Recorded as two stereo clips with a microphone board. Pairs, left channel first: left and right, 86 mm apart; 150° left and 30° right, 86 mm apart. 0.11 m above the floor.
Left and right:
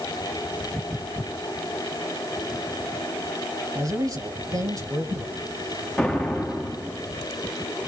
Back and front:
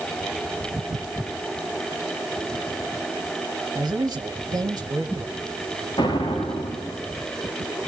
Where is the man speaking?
55° right, 2 m.